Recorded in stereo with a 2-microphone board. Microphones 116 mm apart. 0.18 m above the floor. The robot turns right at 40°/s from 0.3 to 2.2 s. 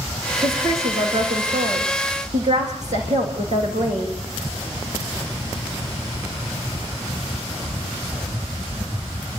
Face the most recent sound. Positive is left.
turn(degrees=-95)